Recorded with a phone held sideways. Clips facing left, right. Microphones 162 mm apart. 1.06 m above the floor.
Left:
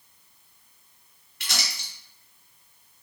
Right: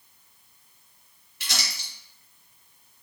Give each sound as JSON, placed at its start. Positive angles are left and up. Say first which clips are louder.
{"t": 1.4, "sound": "crumpling", "louder": "left 1 dB", "side_deg": 60, "distance_m": 2.0}